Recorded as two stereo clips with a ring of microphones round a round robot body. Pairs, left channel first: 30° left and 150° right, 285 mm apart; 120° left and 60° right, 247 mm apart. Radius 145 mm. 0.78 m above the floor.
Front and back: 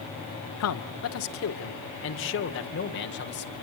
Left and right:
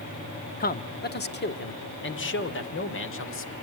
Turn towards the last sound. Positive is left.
turn(degrees=85)